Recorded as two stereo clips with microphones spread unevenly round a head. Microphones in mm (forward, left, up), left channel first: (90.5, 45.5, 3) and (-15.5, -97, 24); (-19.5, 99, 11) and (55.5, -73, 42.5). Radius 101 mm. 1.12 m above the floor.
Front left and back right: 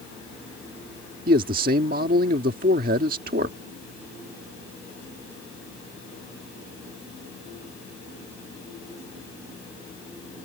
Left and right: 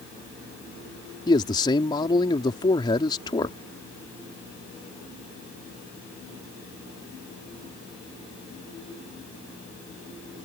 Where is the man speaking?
Straight behind.